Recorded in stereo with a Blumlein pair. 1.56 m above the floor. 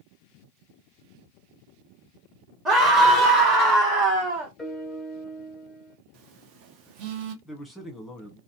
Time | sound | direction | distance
2.6 | a scream | 20° right | 1.5 m
4.6 | a piano | 5° left | 0.9 m
6.1 | a phone buzzing | 40° right | 0.9 m
7.5 | a man speaking | 5° left | 1.4 m